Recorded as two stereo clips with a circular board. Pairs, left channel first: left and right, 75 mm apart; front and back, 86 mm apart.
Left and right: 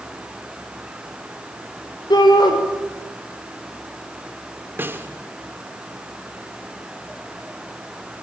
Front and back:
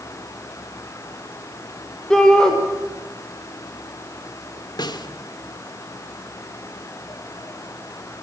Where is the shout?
85° left, 5 m.